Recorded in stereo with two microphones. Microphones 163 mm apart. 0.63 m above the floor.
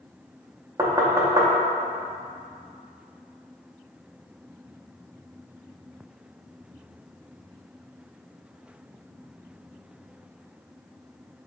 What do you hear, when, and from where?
0.8 s knocking: 20° right (ahead or behind), 0.6 m